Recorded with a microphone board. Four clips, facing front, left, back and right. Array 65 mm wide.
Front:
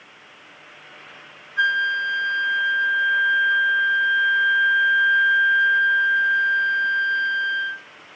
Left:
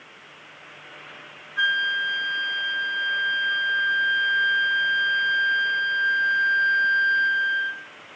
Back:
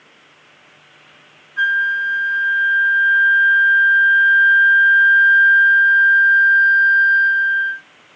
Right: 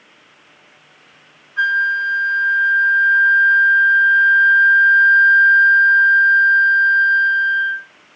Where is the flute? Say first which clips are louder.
Right 6 dB, back 4 dB; 105° right, 3 m.